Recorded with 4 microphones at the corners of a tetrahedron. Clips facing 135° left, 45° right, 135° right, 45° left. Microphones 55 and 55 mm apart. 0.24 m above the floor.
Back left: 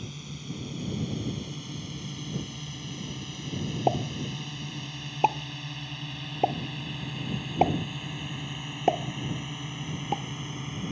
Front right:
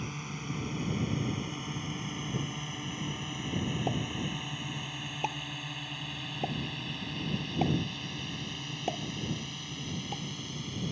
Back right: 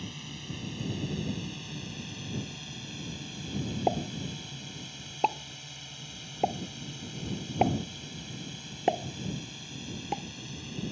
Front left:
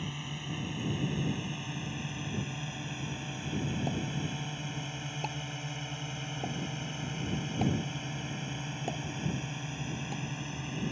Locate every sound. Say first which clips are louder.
0.0 s a drone: front right 2 dB, front left 3 dB; 15° right; by 10.9 s 85° left
3.9 s a pop: back left 6 dB, back right 4 dB; 175° right